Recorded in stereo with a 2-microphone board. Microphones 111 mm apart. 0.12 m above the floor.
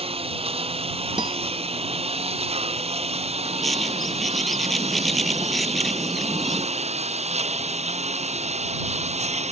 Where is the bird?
Centre (ahead or behind).